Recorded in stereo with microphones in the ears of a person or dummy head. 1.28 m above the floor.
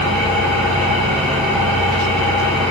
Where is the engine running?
5° left (ahead or behind), 4.5 m.